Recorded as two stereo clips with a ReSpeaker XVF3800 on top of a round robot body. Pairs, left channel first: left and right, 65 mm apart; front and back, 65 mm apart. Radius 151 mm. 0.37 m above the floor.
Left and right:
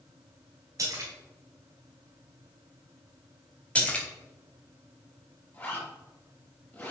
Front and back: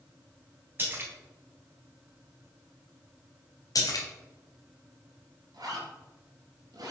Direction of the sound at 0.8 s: 125° right.